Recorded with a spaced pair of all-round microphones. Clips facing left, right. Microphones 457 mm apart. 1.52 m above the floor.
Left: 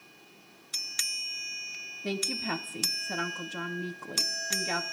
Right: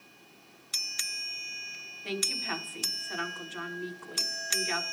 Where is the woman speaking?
60° left (ahead or behind), 1.4 m.